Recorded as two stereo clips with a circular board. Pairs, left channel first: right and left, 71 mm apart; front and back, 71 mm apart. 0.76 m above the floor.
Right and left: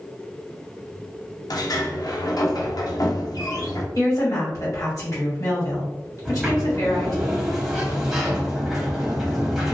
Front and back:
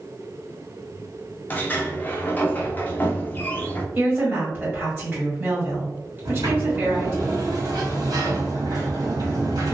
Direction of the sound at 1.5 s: 65° right.